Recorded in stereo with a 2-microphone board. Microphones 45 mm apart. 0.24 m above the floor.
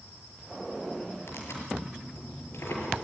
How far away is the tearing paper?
About 5 m.